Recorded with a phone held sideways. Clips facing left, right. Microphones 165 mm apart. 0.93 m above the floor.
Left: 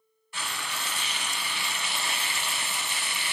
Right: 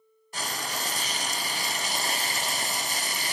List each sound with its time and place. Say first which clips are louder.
0.3 s frying: right 3 dB; 40° right (ahead or behind), 0.5 m